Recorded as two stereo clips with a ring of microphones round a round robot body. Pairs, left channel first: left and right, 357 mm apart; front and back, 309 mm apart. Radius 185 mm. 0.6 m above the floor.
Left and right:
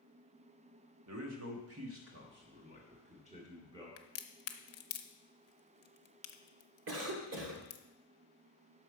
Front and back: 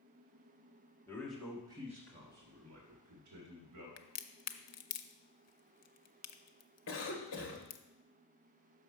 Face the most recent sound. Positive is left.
turn(degrees=-45)